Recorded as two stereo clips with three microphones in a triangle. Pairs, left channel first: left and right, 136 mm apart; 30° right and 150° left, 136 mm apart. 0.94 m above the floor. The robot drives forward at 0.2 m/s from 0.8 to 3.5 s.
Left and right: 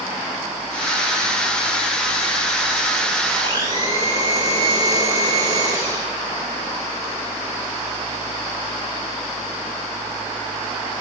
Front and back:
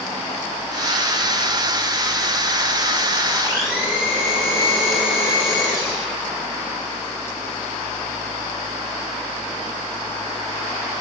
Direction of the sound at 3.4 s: 150° right.